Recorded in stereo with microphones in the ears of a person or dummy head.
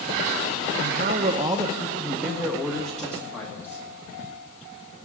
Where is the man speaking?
50° right (ahead or behind), 0.7 m; by 3.9 s 15° left (ahead or behind), 2.5 m.